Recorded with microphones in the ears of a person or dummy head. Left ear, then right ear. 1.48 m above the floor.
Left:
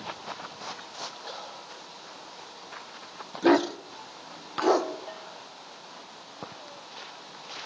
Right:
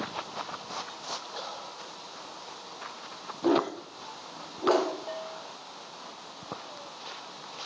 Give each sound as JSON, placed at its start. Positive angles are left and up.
{"t": 3.4, "sound": "a dog barking", "side_deg": 50, "distance_m": 1.2}
{"t": 5.1, "sound": "a bell", "side_deg": -5, "distance_m": 1.5}